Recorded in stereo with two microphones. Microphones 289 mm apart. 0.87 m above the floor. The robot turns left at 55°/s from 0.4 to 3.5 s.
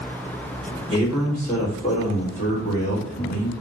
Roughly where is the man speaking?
Behind right.